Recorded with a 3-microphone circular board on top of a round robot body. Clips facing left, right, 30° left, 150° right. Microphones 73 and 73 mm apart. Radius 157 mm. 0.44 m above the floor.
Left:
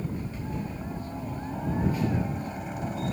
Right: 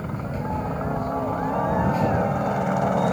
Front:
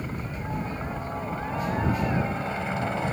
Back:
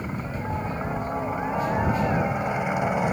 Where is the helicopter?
75° right.